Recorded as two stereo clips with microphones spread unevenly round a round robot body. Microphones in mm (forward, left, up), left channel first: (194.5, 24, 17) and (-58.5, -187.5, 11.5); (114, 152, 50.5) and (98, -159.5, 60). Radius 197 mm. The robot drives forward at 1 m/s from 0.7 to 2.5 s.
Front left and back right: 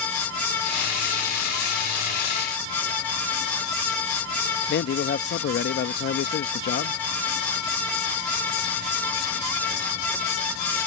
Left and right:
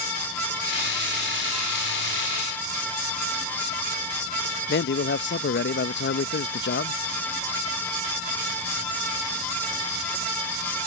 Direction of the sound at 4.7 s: 75° left.